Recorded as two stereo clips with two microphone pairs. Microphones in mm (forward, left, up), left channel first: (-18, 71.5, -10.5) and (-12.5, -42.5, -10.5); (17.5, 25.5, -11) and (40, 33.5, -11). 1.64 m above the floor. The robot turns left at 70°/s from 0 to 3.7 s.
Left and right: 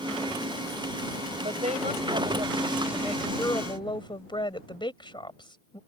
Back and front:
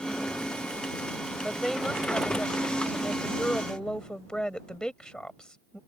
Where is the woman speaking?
60° right; by 5.8 s 140° left.